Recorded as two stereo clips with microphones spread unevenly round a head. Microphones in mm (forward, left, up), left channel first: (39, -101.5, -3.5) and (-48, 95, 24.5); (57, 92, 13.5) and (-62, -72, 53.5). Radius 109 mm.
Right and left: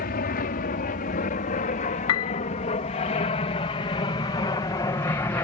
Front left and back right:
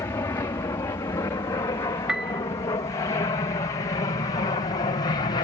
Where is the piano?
40° right.